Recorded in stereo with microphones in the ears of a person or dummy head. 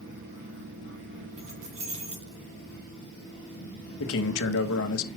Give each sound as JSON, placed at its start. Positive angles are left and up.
{"t": 1.4, "sound": "keys jangling", "side_deg": -45, "distance_m": 3.5}
{"t": 4.0, "sound": "a man speaking", "side_deg": 75, "distance_m": 1.3}